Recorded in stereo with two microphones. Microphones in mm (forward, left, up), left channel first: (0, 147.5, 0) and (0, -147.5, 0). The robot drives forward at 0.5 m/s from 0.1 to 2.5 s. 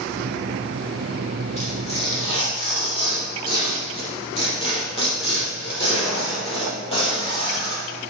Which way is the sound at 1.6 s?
20° left (ahead or behind).